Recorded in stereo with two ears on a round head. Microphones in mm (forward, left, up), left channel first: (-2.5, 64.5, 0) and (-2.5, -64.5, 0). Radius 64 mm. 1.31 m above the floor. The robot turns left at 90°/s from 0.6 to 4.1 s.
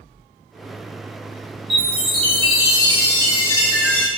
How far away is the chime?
About 2.0 m.